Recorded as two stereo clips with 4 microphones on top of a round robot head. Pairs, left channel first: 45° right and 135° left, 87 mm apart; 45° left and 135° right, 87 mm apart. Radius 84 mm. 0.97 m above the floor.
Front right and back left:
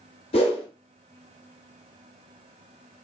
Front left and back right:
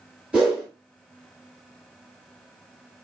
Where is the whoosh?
55° right, 1.1 m.